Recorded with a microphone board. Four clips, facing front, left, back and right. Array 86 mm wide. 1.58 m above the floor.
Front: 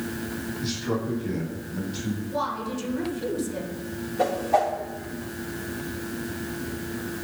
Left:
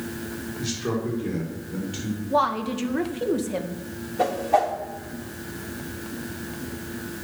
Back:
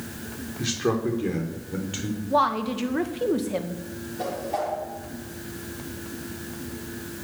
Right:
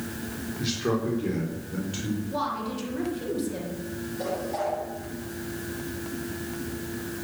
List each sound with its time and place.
0.6 s a man speaking: 170° right, 4.5 m; by 2.2 s straight behind, 5 m
2.3 s a woman speaking: 140° left, 1.9 m
4.2 s a whoosh: 65° left, 4 m